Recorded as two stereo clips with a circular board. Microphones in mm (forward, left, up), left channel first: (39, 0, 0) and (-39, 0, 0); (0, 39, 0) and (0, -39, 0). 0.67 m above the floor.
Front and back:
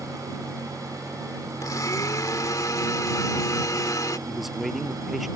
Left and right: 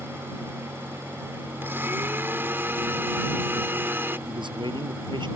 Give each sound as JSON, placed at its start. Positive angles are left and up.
{"t": 1.6, "sound": "a blender", "azimuth_deg": -30}
{"t": 4.3, "sound": "a man speaking", "azimuth_deg": -90}